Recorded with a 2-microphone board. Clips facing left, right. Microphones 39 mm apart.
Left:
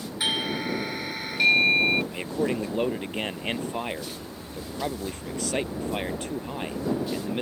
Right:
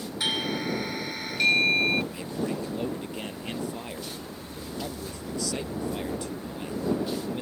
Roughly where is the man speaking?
Left.